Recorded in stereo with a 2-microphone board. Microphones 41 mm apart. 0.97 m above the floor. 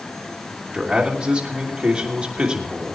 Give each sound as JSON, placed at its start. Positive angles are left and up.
{"t": 0.7, "sound": "a man speaking", "side_deg": -30, "distance_m": 3.0}